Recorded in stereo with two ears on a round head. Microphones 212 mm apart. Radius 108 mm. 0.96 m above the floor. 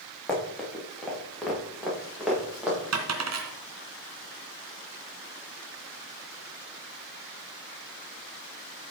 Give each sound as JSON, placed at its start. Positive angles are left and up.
{"t": 0.3, "sound": "running footsteps", "side_deg": 5, "distance_m": 6.0}
{"t": 2.9, "sound": "a dropped coin", "side_deg": -75, "distance_m": 2.5}